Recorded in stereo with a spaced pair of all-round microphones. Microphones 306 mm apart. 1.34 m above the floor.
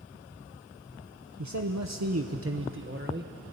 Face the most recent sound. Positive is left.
turn(degrees=-30)  # may be behind; listen again after turning